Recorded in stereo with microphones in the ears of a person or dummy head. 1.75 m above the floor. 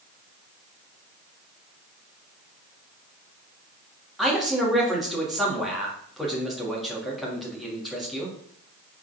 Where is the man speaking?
5° right (ahead or behind), 3 m.